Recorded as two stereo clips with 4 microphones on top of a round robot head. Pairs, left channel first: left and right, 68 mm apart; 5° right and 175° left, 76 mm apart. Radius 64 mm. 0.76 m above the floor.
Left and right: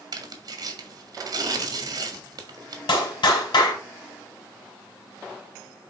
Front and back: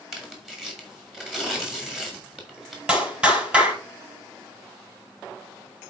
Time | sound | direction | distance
0.1 | tearing paper | 100° right | 2.0 m
2.9 | a clap | 100° left | 4 m